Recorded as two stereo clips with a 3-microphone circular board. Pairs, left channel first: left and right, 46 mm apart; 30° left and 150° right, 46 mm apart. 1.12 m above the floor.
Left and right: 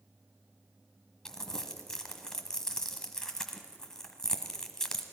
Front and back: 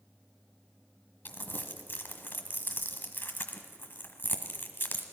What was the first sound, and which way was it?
Crumpling, 15° left.